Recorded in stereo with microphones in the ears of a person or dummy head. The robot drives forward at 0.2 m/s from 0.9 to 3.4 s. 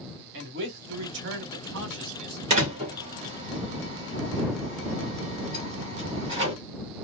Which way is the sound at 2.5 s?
35° right (ahead or behind).